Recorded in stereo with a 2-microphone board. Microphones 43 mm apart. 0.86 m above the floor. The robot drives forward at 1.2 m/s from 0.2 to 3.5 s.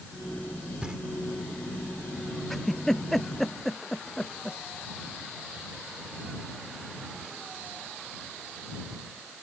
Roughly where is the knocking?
Right.